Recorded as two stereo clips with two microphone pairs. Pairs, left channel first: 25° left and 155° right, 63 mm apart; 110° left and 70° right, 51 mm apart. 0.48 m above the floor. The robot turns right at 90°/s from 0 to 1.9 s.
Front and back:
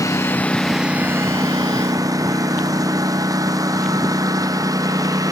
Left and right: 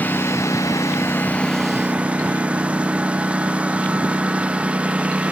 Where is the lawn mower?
50° left; by 5.3 s 140° right.